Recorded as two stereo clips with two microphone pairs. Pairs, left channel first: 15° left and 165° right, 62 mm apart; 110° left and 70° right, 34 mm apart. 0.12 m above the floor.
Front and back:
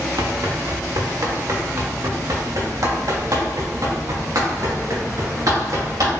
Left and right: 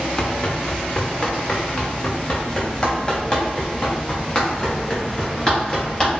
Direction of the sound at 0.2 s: Straight behind.